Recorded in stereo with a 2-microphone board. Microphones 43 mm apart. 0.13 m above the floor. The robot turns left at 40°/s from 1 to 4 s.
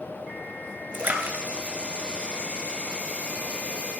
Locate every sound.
0.9 s a splash: 50° right (ahead or behind), 1.8 m; by 3.1 s 15° right (ahead or behind), 1.8 m